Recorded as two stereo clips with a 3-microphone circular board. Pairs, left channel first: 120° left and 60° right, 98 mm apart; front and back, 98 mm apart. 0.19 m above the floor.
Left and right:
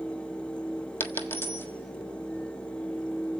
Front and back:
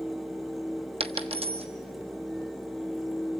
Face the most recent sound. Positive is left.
turn(degrees=-170)